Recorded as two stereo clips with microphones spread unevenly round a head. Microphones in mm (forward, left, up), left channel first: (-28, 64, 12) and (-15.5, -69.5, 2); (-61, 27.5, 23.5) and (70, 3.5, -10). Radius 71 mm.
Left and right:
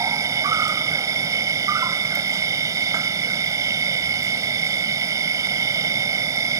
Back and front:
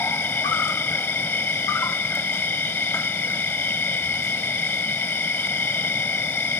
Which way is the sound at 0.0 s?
145° right.